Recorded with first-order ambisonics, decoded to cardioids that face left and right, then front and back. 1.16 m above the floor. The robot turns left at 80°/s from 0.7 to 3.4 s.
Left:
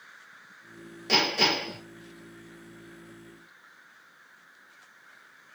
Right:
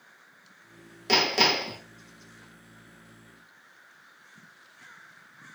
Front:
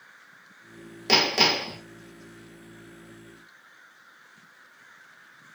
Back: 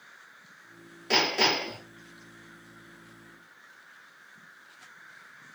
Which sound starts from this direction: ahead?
Hammering, at 1.1 s.